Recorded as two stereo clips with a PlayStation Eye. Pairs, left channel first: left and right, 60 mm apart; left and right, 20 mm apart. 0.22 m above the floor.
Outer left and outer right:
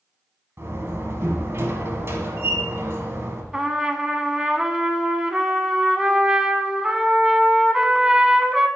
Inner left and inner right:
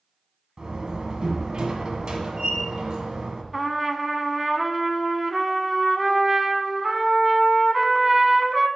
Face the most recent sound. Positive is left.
turn(degrees=-15)  # may be behind; listen again after turning